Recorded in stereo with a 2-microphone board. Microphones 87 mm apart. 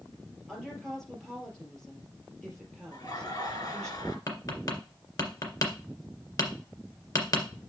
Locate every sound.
0.5 s a woman speaking: 5° left (ahead or behind), 3.5 m
2.9 s laughter: 50° left (ahead or behind), 2 m
4.3 s tapping: 45° left (ahead or behind), 1.9 m